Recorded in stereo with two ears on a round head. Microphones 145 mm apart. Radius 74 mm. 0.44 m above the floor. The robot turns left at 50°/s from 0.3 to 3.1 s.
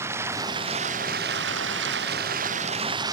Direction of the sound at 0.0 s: 15° right.